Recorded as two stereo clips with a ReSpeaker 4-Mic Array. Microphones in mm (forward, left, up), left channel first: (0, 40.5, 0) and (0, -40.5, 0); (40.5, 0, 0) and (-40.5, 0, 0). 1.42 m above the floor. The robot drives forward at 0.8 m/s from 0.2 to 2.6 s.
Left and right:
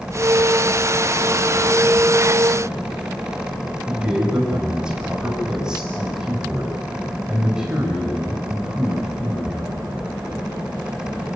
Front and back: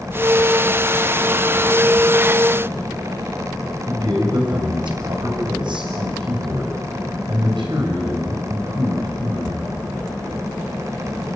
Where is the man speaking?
170° right, 7.5 m.